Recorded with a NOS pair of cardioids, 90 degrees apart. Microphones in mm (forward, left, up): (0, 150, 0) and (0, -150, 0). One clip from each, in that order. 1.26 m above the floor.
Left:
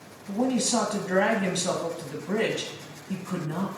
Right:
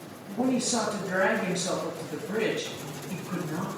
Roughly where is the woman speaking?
Ahead left.